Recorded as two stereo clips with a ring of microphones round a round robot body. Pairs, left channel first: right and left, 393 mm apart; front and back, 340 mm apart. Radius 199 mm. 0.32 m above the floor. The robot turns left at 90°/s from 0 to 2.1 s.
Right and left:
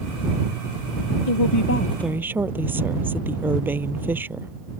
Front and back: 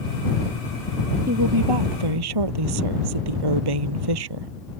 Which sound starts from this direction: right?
A woman speaking, at 1.3 s.